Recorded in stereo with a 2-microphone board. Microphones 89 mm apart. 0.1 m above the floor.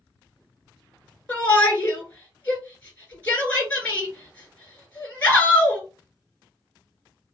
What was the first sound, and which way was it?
A shout, 15° left (ahead or behind).